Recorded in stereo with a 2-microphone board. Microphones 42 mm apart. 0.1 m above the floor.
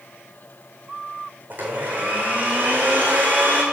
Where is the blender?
45° right (ahead or behind), 2 m.